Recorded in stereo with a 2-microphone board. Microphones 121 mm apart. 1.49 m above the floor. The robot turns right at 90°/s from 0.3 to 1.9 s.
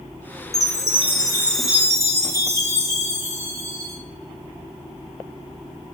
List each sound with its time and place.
0.5 s a chime: 85° left, 1.0 m; by 4.0 s 155° right, 1.0 m